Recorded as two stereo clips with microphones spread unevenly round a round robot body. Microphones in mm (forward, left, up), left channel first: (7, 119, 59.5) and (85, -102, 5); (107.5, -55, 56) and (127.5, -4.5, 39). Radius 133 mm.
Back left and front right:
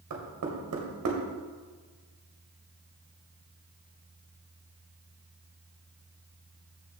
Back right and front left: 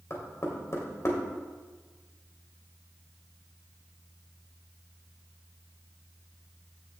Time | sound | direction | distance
0.1 | knocking | 75° right | 2 m